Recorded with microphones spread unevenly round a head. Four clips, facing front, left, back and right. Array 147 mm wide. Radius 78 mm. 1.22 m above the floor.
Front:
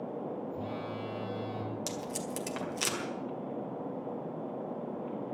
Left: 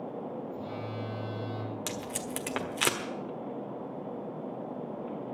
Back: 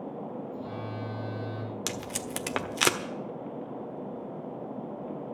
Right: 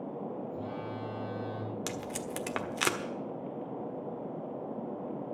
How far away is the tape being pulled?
About 1.4 m.